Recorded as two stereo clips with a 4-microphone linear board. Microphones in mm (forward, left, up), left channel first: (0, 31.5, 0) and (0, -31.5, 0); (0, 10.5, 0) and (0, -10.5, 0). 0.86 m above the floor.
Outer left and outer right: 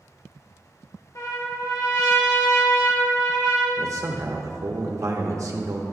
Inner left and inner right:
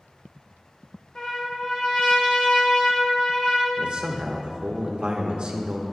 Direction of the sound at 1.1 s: 60° left (ahead or behind).